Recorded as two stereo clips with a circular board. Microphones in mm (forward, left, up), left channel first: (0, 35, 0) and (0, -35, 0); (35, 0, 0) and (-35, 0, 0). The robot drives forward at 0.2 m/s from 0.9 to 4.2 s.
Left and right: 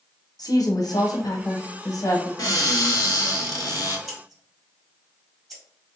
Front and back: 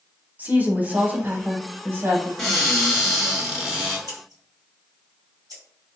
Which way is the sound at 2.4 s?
85° left.